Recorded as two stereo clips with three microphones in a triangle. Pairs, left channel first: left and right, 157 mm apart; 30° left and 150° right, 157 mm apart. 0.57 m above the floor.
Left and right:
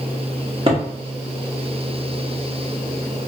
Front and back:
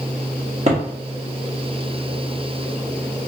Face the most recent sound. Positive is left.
turn(degrees=-130)